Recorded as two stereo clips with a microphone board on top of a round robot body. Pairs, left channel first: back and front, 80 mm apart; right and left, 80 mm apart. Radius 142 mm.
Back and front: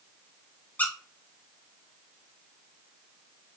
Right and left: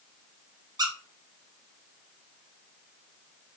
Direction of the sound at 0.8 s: 110° left.